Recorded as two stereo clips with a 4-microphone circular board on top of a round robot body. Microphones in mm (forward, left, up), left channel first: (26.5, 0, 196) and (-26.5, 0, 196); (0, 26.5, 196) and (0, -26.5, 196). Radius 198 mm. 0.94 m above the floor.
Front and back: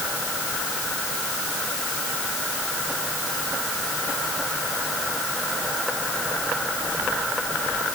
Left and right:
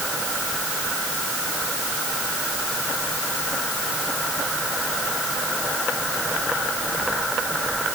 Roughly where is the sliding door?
No sliding door in this recording.